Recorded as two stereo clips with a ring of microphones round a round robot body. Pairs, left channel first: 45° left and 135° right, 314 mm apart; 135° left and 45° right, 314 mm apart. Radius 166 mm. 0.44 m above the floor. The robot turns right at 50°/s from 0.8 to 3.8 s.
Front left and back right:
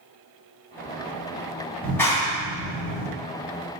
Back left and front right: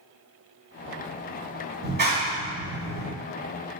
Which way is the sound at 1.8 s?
40° right.